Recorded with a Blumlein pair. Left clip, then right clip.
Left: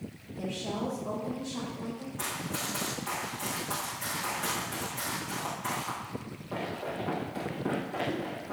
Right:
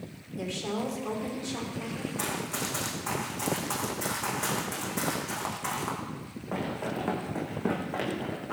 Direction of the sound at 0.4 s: 30° right.